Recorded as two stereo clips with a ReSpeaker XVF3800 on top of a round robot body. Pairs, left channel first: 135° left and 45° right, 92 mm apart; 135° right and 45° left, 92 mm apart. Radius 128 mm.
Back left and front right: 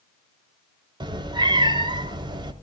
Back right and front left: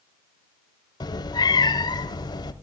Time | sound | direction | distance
1.0 | a cat meowing | 85° right | 0.8 m